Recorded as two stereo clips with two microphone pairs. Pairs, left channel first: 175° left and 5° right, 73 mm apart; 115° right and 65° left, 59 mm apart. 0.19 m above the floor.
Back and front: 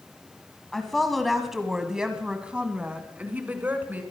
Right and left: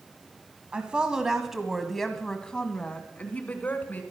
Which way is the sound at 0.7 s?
105° left.